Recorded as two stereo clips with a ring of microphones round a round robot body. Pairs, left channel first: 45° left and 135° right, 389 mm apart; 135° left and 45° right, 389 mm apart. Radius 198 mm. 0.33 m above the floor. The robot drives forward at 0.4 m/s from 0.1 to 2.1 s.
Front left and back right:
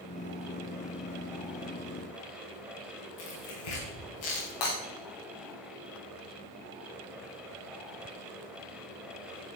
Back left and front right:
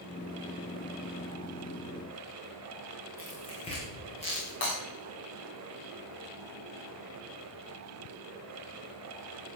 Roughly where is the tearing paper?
Ahead left.